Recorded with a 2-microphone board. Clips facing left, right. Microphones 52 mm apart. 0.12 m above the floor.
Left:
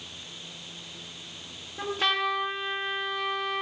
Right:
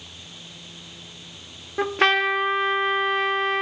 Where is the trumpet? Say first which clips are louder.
Right 7 dB; 60° right (ahead or behind), 1.8 m.